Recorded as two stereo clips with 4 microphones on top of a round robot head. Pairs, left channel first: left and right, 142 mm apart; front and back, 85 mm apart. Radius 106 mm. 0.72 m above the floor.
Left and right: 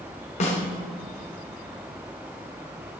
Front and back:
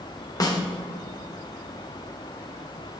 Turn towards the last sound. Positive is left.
turn(degrees=40)